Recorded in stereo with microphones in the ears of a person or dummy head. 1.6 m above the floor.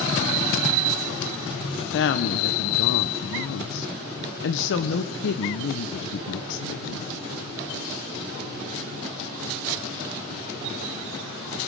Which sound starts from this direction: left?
A woman speaking, at 1.8 s.